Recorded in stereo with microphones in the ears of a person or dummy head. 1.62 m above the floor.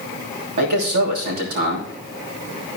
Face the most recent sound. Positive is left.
turn(degrees=-55)  # may be behind; listen again after turning